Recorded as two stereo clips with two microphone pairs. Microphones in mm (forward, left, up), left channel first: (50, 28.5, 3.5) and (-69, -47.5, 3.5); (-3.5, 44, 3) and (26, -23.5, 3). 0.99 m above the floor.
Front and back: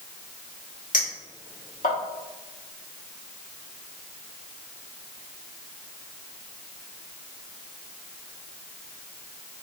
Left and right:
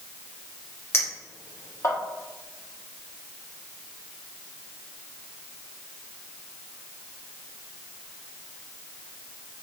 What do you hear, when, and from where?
0.9 s a clink: 60° left, 1.2 m